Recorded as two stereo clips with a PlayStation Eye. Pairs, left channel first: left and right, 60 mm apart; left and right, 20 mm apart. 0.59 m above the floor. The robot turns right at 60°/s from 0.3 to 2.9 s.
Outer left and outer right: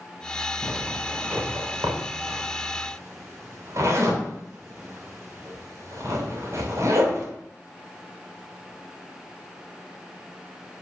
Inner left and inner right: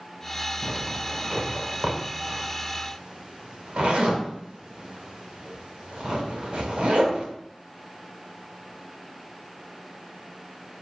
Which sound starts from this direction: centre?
A zipper, at 0.6 s.